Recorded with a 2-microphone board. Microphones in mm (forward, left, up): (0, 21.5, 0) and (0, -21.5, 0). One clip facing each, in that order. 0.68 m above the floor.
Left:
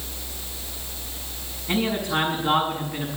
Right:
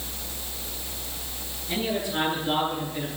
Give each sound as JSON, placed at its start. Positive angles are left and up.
{"t": 1.7, "sound": "a man speaking", "side_deg": 60, "distance_m": 6.0}